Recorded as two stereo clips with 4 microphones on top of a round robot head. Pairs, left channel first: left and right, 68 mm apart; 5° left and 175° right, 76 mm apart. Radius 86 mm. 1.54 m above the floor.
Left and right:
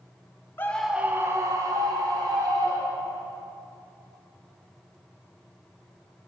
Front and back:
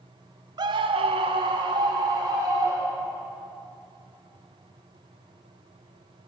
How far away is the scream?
About 0.8 m.